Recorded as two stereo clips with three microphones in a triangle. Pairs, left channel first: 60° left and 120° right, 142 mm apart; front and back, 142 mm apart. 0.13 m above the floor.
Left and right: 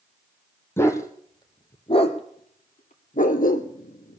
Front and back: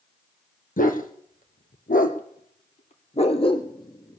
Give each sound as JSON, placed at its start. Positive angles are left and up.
{"t": 0.8, "sound": "a dog barking", "azimuth_deg": -15, "distance_m": 1.6}